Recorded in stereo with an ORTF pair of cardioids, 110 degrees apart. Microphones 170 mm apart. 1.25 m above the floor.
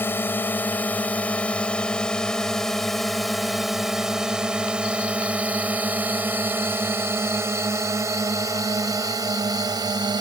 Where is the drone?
15° left; by 10.2 s 25° right.